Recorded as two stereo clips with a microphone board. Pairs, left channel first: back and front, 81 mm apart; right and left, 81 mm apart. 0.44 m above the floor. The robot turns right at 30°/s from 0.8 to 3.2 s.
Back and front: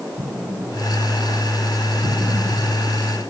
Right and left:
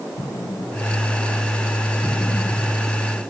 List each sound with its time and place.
0.2 s an explosion: 50° right, 3 m; by 2.9 s 15° left, 3 m